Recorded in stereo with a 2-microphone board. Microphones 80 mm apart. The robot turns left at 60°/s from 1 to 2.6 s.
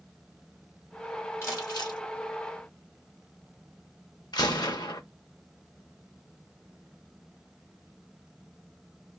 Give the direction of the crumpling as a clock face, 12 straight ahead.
7 o'clock.